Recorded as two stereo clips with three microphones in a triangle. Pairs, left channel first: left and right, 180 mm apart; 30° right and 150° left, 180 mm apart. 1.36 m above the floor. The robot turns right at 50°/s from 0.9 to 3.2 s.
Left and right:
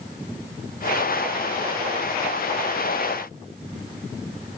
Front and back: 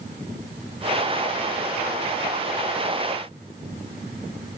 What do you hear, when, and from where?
Only background noise.